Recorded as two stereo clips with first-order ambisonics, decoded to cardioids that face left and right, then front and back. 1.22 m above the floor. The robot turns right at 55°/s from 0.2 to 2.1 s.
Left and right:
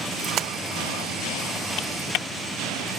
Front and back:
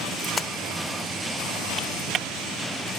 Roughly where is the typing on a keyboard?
Left.